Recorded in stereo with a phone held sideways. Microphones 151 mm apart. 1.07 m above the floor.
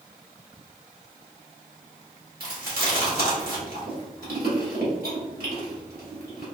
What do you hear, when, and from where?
2.4 s chewing: 80° right, 1.5 m